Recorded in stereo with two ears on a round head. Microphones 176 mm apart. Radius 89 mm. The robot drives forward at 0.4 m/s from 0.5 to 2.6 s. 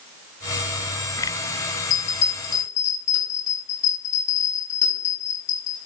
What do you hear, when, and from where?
1.9 s a bell: 40° left (ahead or behind), 1.2 m